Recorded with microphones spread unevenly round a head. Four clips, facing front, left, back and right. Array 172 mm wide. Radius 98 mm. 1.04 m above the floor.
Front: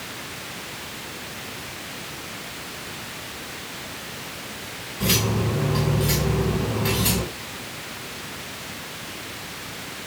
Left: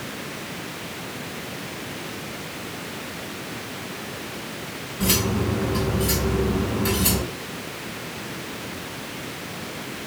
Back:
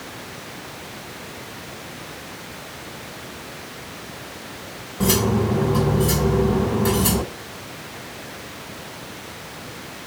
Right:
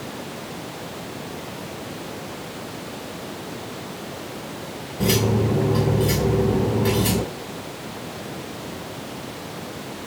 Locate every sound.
5.0 s cutlery clinking: 145° right, 1.9 m